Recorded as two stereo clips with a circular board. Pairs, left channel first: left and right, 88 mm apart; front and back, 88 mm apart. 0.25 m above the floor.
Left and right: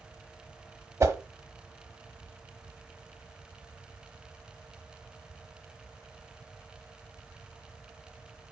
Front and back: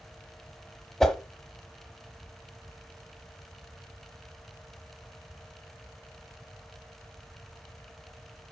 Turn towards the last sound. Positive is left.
turn(degrees=-80)